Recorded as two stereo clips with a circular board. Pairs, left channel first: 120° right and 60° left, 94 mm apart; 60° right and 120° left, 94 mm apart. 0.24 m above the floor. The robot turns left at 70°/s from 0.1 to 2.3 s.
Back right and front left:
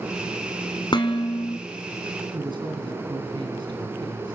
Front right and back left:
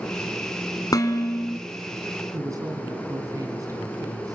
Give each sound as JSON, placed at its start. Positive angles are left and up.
{"t": 0.9, "sound": "dishes clattering", "azimuth_deg": -100, "distance_m": 1.8}
{"t": 2.3, "sound": "a man speaking", "azimuth_deg": 75, "distance_m": 2.5}